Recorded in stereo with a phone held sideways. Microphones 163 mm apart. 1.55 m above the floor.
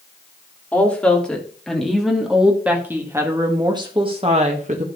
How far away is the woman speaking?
About 3 m.